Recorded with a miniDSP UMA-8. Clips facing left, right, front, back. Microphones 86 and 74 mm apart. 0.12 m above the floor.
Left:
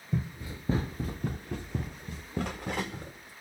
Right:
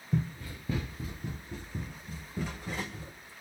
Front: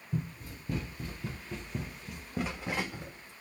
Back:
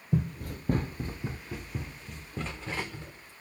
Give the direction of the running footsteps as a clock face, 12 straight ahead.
6 o'clock.